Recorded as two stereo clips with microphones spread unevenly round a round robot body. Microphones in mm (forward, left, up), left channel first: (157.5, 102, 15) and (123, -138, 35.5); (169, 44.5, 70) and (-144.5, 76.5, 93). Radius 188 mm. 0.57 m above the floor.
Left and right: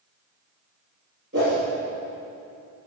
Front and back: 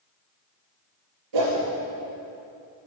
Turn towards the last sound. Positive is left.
turn(degrees=-160)